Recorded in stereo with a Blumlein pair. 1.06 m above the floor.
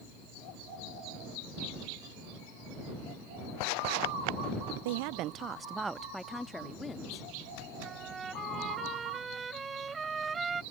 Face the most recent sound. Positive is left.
turn(degrees=-15)